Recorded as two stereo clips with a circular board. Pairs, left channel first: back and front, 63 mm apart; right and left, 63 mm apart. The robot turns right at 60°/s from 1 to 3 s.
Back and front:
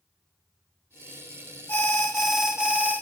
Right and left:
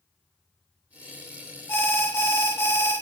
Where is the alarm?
120° right, 2.5 m; by 3.0 s 45° right, 2.5 m.